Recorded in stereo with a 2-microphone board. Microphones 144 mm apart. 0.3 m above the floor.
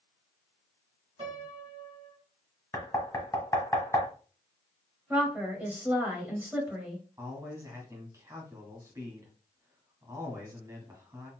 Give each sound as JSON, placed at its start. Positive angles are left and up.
{"t": 1.2, "sound": "a piano", "side_deg": -40, "distance_m": 1.9}
{"t": 2.7, "sound": "knocking", "side_deg": 25, "distance_m": 1.3}
{"t": 5.1, "sound": "a woman speaking", "side_deg": -10, "distance_m": 1.5}
{"t": 7.2, "sound": "a man speaking", "side_deg": -20, "distance_m": 2.0}